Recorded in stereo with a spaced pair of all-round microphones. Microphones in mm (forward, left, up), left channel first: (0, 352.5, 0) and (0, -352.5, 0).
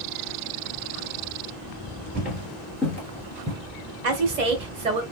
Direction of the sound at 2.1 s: Centre (ahead or behind).